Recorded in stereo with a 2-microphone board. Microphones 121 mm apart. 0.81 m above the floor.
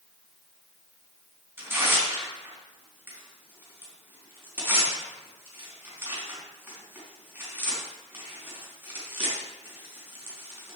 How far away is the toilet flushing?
I don't hear a toilet flushing.